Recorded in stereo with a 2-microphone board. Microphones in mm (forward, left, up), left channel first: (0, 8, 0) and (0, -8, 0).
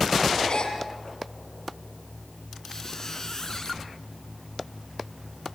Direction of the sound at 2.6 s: 40° left (ahead or behind).